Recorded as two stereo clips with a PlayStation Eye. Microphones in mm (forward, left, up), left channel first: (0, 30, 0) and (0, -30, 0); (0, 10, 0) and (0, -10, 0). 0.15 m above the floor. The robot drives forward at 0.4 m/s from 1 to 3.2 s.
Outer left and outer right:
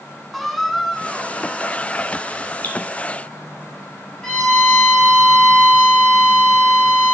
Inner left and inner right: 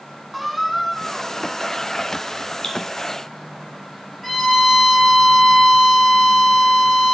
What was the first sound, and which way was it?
A squeak, 5° left (ahead or behind).